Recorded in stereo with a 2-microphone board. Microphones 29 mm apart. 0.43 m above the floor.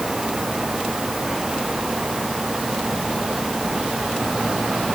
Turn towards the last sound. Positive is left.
No sound to turn to.